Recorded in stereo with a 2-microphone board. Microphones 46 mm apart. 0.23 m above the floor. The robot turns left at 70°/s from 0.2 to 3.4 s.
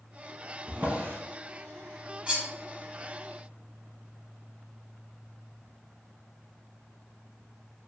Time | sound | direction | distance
0.7 | a drawer | 30° right (ahead or behind) | 0.6 m
2.3 | cutlery clinking | 20° right (ahead or behind) | 0.8 m